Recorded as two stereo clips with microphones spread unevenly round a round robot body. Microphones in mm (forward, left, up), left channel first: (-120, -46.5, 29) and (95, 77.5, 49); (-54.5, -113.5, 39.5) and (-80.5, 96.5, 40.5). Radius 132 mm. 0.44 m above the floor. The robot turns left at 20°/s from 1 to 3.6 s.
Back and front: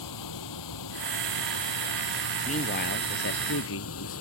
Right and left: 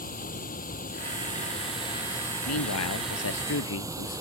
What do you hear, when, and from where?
0.0 s running water: 135° right; by 4.2 s 175° left
2.5 s a man speaking: 85° right; by 4.2 s 105° right